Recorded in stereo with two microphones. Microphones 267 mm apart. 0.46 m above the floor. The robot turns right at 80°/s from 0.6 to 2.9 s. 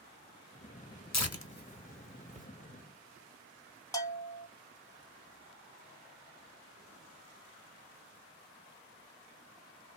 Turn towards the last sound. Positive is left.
turn(degrees=10)  # may be behind; listen again after turning